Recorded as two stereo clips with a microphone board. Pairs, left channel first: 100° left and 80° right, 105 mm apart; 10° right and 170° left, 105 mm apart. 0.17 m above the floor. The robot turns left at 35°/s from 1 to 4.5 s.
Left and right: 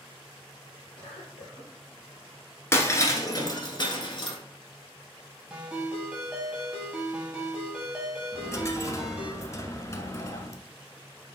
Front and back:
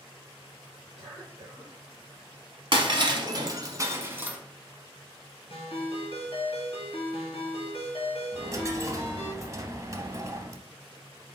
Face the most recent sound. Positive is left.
turn(degrees=135)